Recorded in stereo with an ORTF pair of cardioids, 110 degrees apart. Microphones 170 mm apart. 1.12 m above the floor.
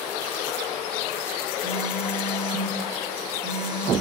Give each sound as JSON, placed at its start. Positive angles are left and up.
{"t": 1.6, "sound": "a phone buzzing", "azimuth_deg": -25, "distance_m": 5.0}